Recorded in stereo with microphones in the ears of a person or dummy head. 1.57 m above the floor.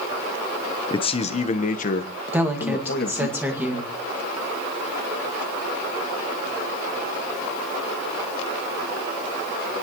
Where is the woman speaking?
10° right (ahead or behind), 2 m.